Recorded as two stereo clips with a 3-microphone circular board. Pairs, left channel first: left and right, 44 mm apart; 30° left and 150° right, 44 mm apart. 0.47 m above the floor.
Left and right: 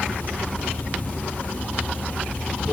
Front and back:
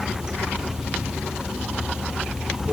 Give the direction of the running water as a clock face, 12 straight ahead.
7 o'clock.